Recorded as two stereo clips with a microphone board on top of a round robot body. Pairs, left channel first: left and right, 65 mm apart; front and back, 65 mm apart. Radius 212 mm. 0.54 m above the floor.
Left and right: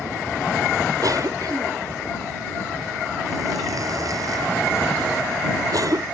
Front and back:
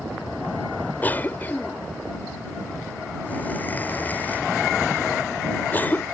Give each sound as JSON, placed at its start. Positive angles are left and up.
{"t": 1.0, "sound": "a cough", "azimuth_deg": -65}